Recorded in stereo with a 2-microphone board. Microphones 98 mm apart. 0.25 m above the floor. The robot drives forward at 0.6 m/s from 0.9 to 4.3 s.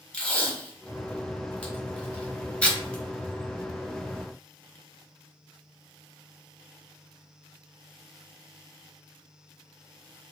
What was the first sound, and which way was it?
Tape being pulled, 10° left (ahead or behind).